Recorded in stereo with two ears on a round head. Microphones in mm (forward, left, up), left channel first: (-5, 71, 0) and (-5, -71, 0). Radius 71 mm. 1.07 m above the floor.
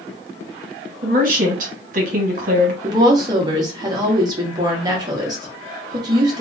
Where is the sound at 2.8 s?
25° right (ahead or behind), 1.1 m.